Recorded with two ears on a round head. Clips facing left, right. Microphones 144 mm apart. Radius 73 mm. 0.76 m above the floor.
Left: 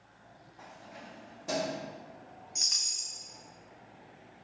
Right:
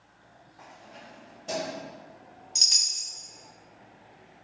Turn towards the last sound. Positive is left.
turn(degrees=-40)  # may be behind; listen again after turning